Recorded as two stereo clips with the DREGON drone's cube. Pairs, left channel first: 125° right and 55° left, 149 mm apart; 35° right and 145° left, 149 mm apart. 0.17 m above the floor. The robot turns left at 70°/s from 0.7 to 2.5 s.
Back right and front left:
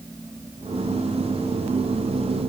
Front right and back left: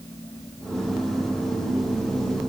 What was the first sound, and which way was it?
Only background noise.